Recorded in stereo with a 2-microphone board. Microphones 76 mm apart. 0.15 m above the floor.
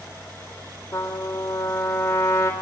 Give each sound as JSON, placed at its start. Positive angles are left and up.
{"t": 0.9, "sound": "a trumpet", "side_deg": 30, "distance_m": 3.0}